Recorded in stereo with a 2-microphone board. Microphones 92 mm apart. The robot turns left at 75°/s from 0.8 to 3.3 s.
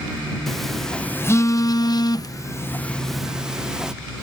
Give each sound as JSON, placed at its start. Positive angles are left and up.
{"t": 0.5, "sound": "a phone buzzing", "side_deg": 5}